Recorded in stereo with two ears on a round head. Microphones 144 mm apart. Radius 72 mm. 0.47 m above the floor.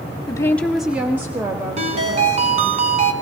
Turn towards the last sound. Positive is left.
turn(degrees=-40)  # may be behind; listen again after turning